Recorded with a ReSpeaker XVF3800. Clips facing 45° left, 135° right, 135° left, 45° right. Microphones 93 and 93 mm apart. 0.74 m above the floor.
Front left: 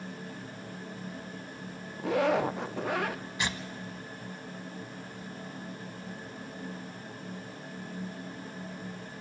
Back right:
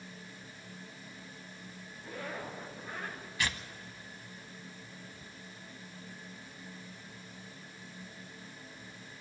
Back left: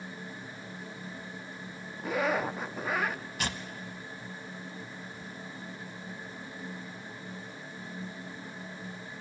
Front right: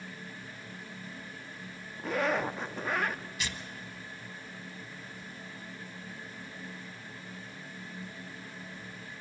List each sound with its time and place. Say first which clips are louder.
2.0 s a zipper: front left 16 dB, back left 1 dB; 50° left, 0.5 m
3.4 s tearing paper: even, back left 4 dB; 110° left, 0.9 m